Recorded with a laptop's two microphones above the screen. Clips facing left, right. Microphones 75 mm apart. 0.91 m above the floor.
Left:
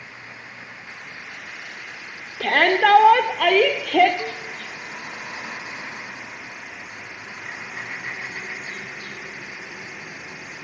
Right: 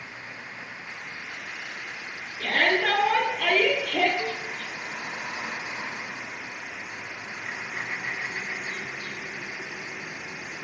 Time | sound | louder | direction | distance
2.4 | a shout | left 6 dB | 80° left | 2.0 m
4.2 | a cowbell | left 1 dB | 15° left (ahead or behind) | 3 m